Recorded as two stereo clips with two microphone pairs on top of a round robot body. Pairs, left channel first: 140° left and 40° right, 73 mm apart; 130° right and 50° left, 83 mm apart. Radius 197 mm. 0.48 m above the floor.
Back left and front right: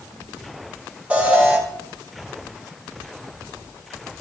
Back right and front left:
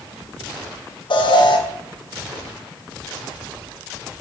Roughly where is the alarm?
Behind right.